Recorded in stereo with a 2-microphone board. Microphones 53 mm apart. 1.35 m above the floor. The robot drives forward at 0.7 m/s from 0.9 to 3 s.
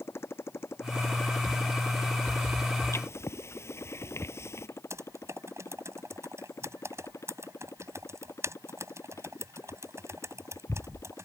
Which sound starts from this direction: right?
Typing on a keyboard, at 4.9 s.